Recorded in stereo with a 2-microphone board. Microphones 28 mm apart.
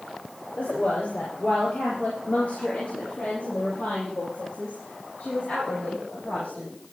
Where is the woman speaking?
70° left (ahead or behind), 4.5 m; by 6.7 s 50° left (ahead or behind), 7 m.